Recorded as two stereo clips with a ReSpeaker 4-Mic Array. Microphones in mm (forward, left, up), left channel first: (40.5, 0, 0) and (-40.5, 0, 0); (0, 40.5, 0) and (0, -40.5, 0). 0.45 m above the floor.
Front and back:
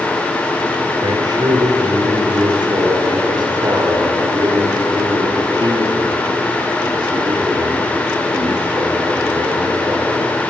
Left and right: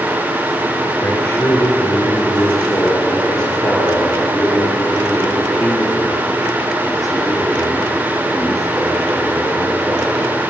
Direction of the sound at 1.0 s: 160° left.